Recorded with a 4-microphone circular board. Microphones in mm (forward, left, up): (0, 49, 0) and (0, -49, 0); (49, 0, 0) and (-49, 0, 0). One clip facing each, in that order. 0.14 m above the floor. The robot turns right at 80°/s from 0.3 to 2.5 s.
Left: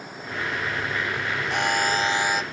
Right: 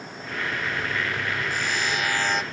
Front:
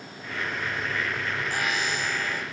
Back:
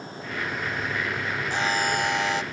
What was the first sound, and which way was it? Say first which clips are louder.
A buzzer: left 4 dB, back 6 dB; 110° left.